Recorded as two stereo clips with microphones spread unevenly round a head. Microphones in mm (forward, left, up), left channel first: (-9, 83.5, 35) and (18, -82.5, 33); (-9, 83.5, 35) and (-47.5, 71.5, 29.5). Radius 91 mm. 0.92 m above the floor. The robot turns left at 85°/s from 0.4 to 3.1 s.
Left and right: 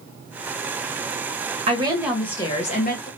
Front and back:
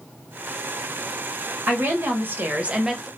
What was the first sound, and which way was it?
A woman speaking, 130° right.